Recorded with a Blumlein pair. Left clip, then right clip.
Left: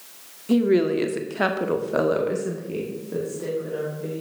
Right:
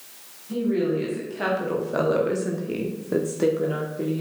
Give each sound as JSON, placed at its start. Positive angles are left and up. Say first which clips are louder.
{"t": 0.5, "sound": "a woman speaking", "louder": "left 5 dB", "azimuth_deg": 40, "distance_m": 1.3}